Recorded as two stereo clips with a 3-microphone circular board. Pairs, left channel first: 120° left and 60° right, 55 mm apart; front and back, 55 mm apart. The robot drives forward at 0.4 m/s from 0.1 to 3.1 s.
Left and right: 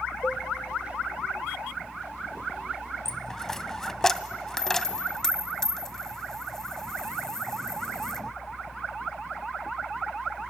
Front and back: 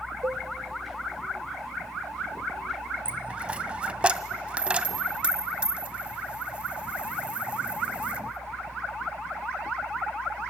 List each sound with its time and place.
0.2 s a cowbell: 170° left, 0.7 m
3.0 s a dropped coin: 175° right, 0.5 m